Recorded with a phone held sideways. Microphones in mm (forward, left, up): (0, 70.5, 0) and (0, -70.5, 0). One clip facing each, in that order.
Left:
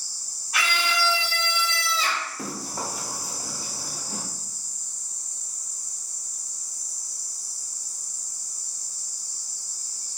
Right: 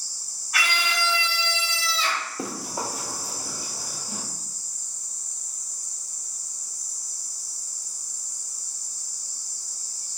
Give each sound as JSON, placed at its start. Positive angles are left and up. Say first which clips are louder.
{"t": 0.5, "sound": "a scream", "louder": "left 1 dB", "side_deg": 20, "distance_m": 1.6}
{"t": 2.4, "sound": "running footsteps", "louder": "right 2 dB", "side_deg": -25, "distance_m": 1.1}